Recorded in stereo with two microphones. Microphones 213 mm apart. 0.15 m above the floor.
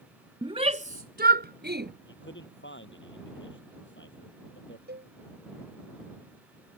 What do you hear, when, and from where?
0.4 s a shout: 20° right (ahead or behind); by 1.9 s 50° right (ahead or behind)
2.1 s a man speaking: 60° left (ahead or behind)
4.9 s a cowbell: 50° right (ahead or behind)